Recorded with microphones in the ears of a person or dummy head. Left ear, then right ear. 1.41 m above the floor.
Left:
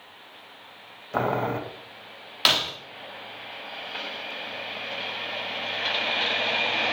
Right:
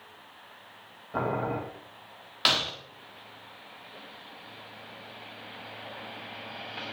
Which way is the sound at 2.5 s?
10° left (ahead or behind).